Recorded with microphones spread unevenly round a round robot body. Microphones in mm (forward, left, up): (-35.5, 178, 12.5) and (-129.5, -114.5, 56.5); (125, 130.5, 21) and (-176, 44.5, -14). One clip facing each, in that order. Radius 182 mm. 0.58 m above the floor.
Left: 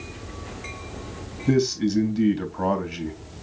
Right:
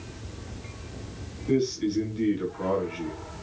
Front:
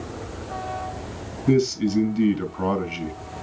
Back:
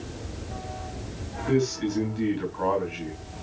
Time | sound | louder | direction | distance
1.5 | a man speaking | left 3 dB, front 5 dB | 45° left | 3.5 m